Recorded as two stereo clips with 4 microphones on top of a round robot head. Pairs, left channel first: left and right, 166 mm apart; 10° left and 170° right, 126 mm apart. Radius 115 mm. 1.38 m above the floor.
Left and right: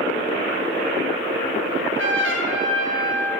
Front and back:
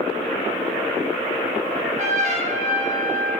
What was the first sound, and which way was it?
A trumpet, 120° right.